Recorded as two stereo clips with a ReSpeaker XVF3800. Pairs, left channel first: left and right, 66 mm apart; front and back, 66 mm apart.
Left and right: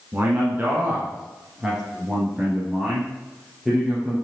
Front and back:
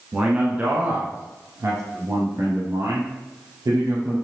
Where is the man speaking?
120° right, 1.3 m; by 4.1 s straight behind, 3 m.